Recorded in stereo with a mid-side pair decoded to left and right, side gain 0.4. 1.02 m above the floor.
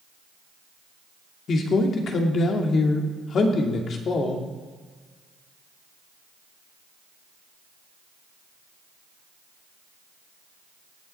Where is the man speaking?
60° left, 2.5 m.